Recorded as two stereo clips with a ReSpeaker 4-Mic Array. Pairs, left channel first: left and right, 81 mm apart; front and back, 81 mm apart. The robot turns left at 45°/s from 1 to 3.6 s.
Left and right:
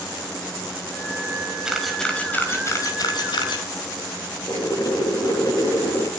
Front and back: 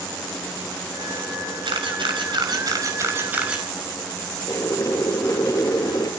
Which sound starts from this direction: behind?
A camera shutter, at 1.6 s.